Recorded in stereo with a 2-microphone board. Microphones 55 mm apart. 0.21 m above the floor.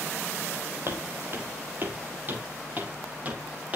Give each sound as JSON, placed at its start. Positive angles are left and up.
{"t": 0.9, "sound": "footsteps", "side_deg": -50, "distance_m": 5.0}